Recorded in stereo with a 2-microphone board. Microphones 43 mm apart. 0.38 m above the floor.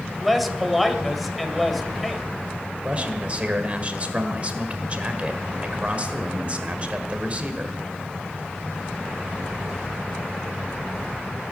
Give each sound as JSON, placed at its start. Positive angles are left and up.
{"t": 0.2, "sound": "a man speaking", "side_deg": 0, "distance_m": 1.6}
{"t": 2.8, "sound": "a man speaking", "side_deg": -30, "distance_m": 1.6}